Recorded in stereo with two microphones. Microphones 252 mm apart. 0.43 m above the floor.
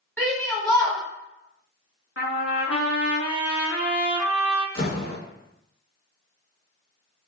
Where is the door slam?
50° left (ahead or behind), 1.8 m.